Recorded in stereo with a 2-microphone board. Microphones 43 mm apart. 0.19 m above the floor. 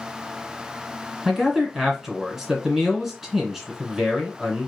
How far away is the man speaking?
About 1.5 m.